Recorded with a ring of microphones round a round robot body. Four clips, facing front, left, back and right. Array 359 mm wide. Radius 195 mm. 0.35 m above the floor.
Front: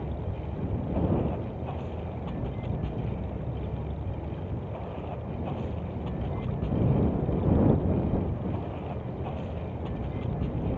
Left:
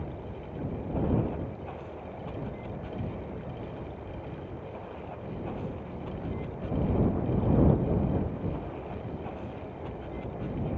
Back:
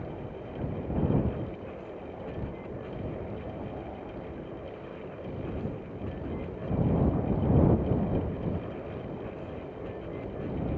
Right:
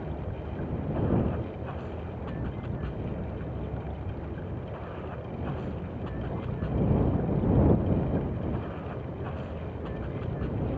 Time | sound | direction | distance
0.0 | running water | 25° right | ?